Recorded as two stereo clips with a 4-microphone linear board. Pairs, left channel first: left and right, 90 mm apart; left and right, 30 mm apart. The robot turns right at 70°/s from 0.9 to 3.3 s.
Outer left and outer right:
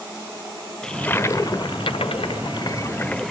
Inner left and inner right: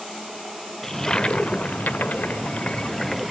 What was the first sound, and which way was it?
A toilet flushing, 10° left.